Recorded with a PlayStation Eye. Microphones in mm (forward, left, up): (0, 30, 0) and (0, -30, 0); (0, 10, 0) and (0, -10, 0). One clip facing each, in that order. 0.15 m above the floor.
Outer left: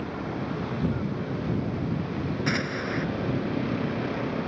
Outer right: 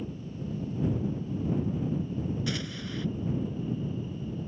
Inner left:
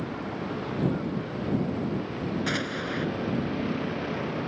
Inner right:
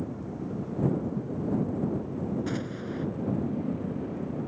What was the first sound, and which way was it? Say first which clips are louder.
A vehicle: outer left 7 dB, inner left 3 dB; 70° left (ahead or behind).